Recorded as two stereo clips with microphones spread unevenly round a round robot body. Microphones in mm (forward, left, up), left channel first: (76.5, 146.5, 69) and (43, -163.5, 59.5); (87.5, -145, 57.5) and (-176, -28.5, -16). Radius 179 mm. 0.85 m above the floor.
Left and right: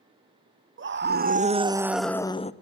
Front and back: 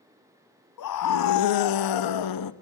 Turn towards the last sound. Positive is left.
turn(degrees=15)